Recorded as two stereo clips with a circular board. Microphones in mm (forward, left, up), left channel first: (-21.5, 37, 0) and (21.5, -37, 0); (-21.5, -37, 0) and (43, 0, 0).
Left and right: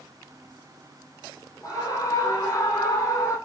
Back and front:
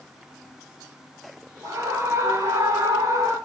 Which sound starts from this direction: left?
A scream, at 1.6 s.